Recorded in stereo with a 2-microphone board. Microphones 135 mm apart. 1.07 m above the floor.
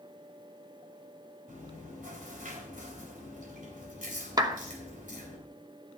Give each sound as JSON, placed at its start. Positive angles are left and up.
{"t": 1.5, "sound": "chewing", "side_deg": -85, "distance_m": 3.5}
{"t": 4.4, "sound": "a clap", "side_deg": -30, "distance_m": 0.9}